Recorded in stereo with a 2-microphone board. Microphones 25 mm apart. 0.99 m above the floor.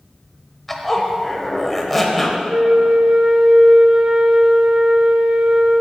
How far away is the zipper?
About 0.9 m.